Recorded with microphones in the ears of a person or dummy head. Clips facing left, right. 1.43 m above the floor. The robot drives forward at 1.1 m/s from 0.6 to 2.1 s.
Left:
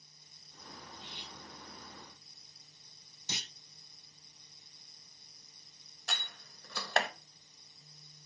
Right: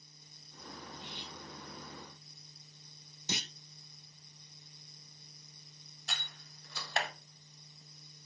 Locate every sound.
0.9 s cutlery clinking: 40° right (ahead or behind), 3 m; by 1.4 s 50° right (ahead or behind), 3 m
3.3 s a clunk: 55° right (ahead or behind), 0.6 m
6.1 s a door slam: 45° left (ahead or behind), 1.1 m